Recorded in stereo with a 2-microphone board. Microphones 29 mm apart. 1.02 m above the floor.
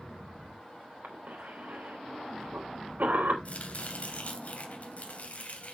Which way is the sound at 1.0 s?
85° right.